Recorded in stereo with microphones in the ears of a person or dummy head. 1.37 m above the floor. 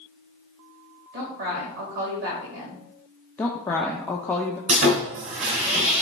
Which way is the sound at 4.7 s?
40° right (ahead or behind).